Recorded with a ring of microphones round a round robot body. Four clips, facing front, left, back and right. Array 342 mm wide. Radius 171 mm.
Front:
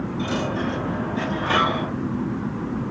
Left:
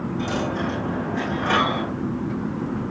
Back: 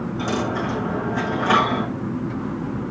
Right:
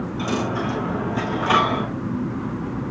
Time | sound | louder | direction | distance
0.2 | a dropped coin | right 2 dB, back 2 dB | 165° right | 8 m